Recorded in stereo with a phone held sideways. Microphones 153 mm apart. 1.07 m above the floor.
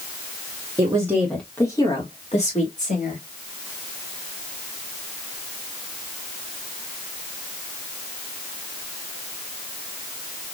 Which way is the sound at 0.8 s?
25° right (ahead or behind).